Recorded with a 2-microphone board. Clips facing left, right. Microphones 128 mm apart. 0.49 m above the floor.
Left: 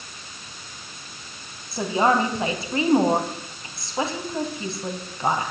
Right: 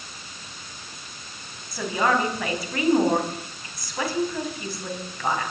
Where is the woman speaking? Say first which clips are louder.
Left 3 dB; 25° left (ahead or behind), 3.5 m.